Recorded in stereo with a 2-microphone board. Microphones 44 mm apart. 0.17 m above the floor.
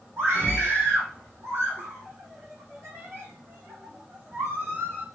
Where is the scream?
75° right (ahead or behind), 6 m.